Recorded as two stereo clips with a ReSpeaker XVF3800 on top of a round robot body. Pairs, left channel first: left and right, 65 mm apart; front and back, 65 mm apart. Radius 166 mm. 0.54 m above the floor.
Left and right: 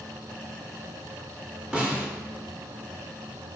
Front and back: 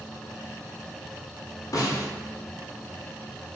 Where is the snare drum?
15° right, 1.1 m.